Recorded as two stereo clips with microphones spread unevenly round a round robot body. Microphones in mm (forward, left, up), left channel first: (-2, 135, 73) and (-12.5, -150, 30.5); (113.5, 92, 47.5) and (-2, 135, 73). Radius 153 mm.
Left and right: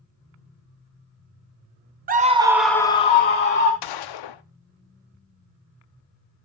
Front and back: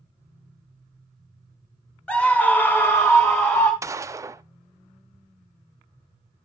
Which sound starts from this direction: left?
A gunshot, at 3.8 s.